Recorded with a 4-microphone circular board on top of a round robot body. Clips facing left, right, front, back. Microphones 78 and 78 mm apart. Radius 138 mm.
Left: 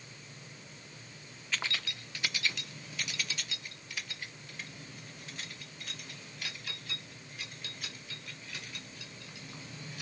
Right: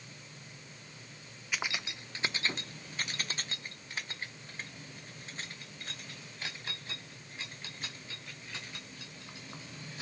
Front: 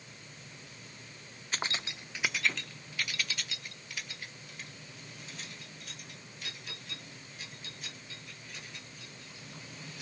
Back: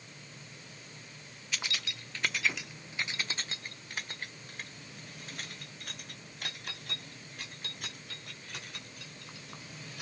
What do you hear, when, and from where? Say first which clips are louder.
1.5 s keys jangling: even, front 3 dB; 15° right, 0.8 m; by 10.0 s 150° right, 4.5 m